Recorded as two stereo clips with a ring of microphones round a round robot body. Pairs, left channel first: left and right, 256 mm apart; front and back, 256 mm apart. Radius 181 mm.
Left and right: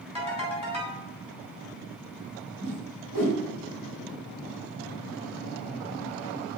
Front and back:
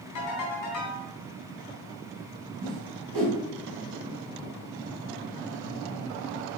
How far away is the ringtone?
About 3.5 m.